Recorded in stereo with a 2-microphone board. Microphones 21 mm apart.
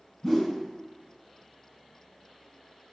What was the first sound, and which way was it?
A whoosh, 20° left (ahead or behind).